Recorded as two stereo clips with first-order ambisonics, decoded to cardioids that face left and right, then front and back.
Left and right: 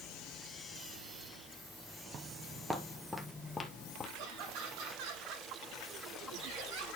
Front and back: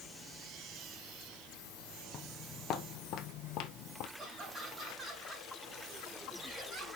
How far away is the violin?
I don't hear a violin.